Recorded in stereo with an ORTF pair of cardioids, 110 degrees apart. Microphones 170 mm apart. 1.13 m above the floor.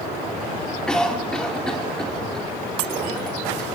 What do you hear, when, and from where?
0.9 s a cough: 5° left, 2.5 m